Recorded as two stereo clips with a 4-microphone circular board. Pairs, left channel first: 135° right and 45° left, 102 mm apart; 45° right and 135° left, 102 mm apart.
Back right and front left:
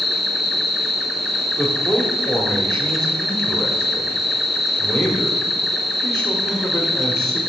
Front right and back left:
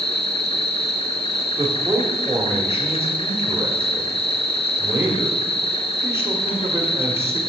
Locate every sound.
0.0 s an insect: 45° right, 1.0 m
1.6 s a man speaking: 155° left, 1.4 m